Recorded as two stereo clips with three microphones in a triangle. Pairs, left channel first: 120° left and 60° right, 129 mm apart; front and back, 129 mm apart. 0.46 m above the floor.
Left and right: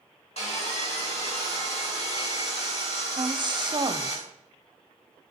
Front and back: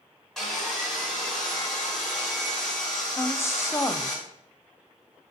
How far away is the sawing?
About 4 m.